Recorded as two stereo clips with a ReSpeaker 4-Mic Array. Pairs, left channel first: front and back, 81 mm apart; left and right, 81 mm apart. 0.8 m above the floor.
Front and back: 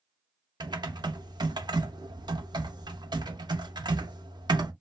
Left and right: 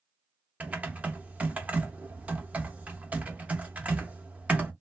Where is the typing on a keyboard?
160° right, 0.6 m.